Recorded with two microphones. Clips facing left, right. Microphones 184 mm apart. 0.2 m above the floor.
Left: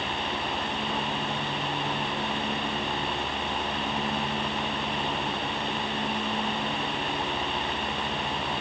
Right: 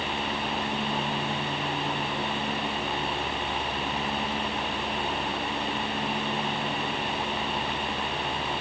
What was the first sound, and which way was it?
Only background noise.